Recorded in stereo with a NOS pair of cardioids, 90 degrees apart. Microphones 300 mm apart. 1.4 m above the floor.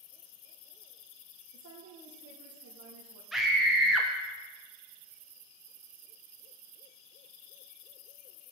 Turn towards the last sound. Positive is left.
turn(degrees=0)